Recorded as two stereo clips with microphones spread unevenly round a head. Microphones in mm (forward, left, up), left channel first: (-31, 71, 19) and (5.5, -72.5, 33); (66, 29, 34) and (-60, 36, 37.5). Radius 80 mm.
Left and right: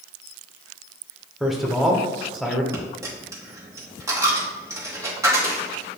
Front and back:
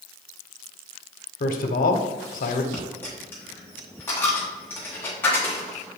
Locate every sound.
1.4 s a man speaking: 15° left, 0.7 m
2.7 s a dropped coin: 65° right, 0.9 m